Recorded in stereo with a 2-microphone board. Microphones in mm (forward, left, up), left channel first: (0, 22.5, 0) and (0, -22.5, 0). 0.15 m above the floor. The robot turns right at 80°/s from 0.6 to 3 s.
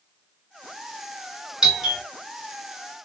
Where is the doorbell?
15° right (ahead or behind), 2.5 m; by 2.0 s centre (ahead or behind), 2.5 m.